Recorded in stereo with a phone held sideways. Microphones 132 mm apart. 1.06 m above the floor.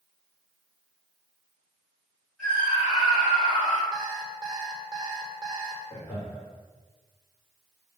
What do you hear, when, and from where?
2.4 s a scream: 5° left (ahead or behind), 4 m; by 3.8 s 15° left (ahead or behind), 4 m
3.9 s an alarm clock: 35° right (ahead or behind), 2 m
5.9 s laughter: 10° left (ahead or behind), 3.5 m